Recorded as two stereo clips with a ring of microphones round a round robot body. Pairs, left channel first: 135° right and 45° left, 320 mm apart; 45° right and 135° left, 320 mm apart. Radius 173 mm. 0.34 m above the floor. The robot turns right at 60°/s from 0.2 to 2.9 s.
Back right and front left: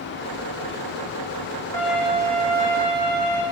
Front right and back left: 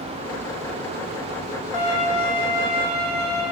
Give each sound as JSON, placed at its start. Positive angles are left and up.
{"t": 1.7, "sound": "a violin", "azimuth_deg": -55, "distance_m": 9.5}